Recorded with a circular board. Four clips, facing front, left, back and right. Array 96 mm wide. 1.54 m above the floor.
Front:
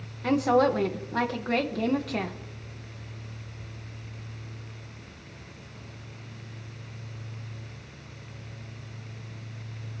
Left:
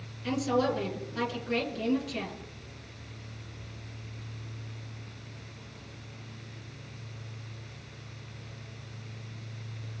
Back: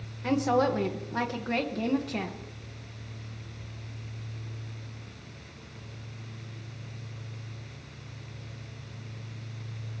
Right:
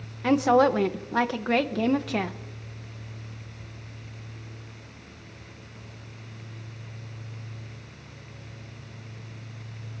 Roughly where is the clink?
I don't hear a clink.